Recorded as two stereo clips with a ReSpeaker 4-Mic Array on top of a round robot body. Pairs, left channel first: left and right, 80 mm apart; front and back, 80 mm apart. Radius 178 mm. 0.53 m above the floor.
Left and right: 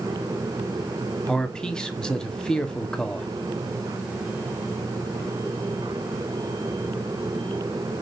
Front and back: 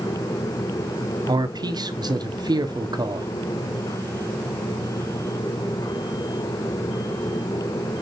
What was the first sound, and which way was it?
A man speaking, 170° left.